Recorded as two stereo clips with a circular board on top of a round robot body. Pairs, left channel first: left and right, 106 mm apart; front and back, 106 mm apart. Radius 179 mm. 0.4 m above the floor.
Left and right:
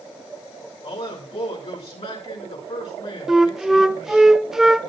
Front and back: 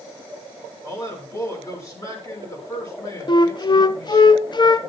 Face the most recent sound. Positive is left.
turn(degrees=-5)